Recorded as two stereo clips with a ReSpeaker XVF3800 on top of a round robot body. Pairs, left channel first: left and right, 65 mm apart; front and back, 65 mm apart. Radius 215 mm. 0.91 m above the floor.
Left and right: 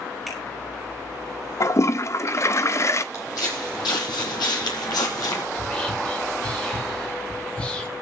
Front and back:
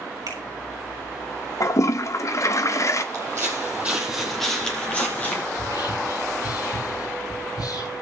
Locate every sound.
0.3 s a finger snap: straight behind, 5 m
1.6 s a toilet flushing: 40° left, 0.8 m
3.1 s footsteps: 135° left, 1.7 m; by 5.4 s 60° left, 2.5 m
5.5 s whispering: 20° left, 7 m